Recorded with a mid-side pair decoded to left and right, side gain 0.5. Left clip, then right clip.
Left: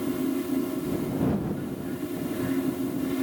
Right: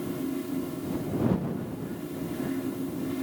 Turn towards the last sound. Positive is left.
turn(degrees=25)